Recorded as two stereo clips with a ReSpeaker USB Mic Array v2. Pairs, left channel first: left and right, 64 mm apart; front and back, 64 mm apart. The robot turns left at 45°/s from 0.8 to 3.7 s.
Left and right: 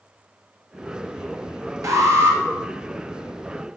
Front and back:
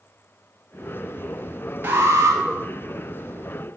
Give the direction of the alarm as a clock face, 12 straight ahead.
4 o'clock.